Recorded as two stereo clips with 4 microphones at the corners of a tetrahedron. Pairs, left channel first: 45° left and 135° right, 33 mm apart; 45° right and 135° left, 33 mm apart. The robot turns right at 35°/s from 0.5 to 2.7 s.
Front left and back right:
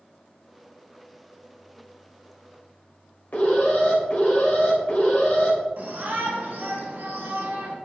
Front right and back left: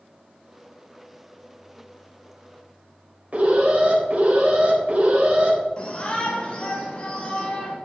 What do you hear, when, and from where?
3.3 s an alarm: 90° left, 3.5 m
5.8 s a shout: 95° right, 4 m